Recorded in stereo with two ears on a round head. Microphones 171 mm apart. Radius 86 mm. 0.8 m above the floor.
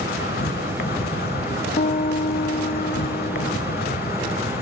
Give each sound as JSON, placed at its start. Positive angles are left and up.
{"t": 0.0, "sound": "an insect", "side_deg": 55, "distance_m": 1.5}
{"t": 1.8, "sound": "a piano", "side_deg": 35, "distance_m": 0.9}